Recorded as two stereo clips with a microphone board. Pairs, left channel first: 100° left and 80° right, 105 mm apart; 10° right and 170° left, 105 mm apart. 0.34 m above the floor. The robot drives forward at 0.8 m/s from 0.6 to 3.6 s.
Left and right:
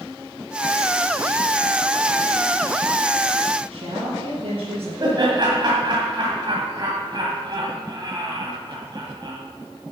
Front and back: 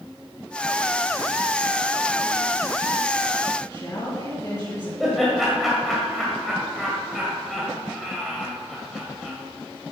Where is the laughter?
100° right, 1.9 m.